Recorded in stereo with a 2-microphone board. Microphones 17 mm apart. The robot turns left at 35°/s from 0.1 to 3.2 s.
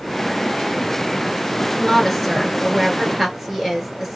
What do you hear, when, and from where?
1.8 s a woman speaking: 20° left, 1.5 m; by 4.2 s 30° right, 1.5 m